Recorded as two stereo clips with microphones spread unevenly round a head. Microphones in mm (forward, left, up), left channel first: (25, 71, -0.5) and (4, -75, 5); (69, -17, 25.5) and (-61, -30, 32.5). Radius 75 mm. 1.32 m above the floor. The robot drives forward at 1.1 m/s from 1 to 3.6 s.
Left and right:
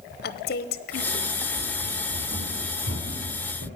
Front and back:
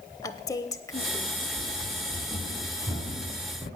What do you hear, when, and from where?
0.2 s a woman speaking: 70° left, 0.8 m; by 1.5 s 110° left, 0.8 m
1.6 s running footsteps: 80° right, 3.5 m